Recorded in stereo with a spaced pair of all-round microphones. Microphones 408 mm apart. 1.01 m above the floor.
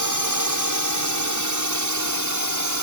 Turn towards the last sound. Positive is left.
turn(degrees=-45)  # may be behind; listen again after turning